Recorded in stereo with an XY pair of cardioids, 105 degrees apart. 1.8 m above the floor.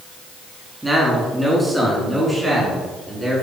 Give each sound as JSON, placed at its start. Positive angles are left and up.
{"t": 0.8, "sound": "a man speaking", "azimuth_deg": -5, "distance_m": 4.5}